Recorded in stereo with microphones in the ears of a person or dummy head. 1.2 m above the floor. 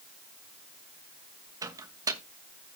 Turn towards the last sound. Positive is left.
turn(degrees=-20)  # may be behind; listen again after turning